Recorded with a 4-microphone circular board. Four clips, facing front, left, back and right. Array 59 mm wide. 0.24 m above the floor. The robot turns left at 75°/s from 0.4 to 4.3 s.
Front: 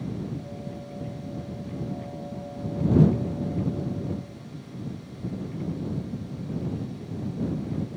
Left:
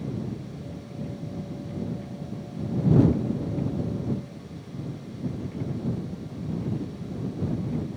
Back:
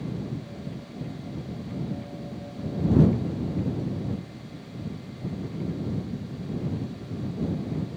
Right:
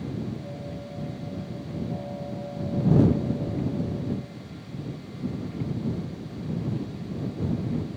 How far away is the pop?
I don't hear a pop.